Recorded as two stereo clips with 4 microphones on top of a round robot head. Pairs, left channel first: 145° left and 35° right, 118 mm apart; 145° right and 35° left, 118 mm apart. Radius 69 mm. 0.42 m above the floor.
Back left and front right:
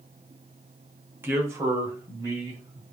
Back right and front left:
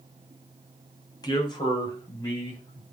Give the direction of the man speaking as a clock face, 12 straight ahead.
3 o'clock.